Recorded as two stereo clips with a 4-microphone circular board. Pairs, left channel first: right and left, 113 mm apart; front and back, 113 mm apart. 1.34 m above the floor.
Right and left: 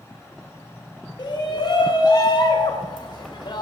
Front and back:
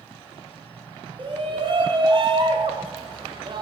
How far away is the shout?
About 1.7 m.